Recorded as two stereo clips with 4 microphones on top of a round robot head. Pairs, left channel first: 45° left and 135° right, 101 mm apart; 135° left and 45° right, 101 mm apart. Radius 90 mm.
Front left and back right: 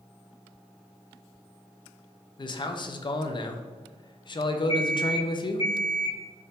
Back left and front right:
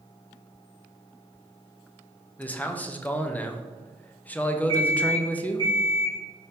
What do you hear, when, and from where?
2.4 s a man speaking: 65° left, 0.5 m
4.7 s an alarm clock: 85° left, 1.3 m